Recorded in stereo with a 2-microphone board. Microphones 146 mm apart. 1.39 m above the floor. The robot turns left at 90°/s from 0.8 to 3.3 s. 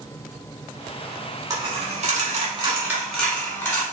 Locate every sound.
1.5 s a dropped coin: 30° right (ahead or behind), 1.2 m; by 3.8 s 15° left (ahead or behind), 1.2 m